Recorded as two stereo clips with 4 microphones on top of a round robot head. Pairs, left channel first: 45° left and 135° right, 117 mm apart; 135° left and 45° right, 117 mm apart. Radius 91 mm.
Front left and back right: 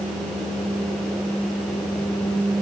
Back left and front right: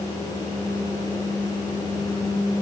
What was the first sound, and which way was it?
Only background noise.